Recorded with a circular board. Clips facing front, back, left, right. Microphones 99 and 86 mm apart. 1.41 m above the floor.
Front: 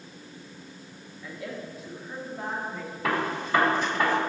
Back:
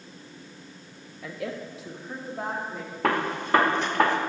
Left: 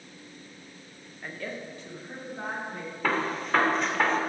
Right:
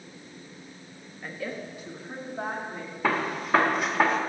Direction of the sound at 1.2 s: Straight behind.